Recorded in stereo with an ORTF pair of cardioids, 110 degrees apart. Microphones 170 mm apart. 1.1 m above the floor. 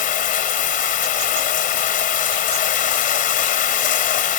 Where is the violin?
I don't hear a violin.